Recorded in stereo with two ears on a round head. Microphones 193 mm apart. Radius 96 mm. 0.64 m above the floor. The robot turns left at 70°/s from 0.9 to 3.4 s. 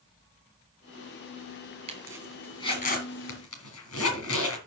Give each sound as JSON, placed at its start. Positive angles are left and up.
{"t": 1.9, "sound": "a zipper", "side_deg": -30, "distance_m": 4.0}